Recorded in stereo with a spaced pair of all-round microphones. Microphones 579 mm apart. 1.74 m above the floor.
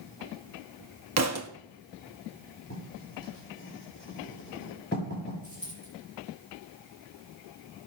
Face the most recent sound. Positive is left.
turn(degrees=35)  # may be behind; listen again after turning